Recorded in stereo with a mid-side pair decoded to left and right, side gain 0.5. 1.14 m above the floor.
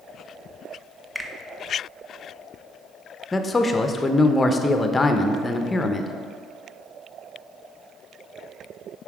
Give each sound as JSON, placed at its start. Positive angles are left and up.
{"t": 1.1, "sound": "a finger snap", "azimuth_deg": -5, "distance_m": 0.8}
{"t": 3.3, "sound": "a man speaking", "azimuth_deg": 25, "distance_m": 0.7}